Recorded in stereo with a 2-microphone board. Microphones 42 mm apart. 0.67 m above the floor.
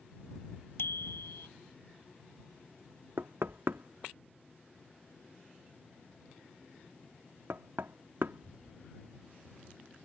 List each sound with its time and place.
0.8 s a bicycle bell: 70° left (ahead or behind)
3.2 s knocking: 60° right (ahead or behind)